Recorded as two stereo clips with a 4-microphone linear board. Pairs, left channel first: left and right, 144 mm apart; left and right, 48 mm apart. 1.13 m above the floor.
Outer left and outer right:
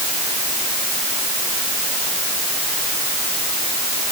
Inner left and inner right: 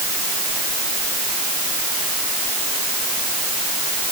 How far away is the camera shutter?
I don't hear a camera shutter.